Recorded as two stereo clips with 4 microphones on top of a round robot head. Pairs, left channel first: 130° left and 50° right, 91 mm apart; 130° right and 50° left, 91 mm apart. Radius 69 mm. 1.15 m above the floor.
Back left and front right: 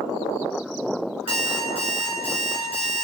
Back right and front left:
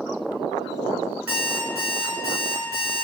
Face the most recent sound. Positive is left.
turn(degrees=-20)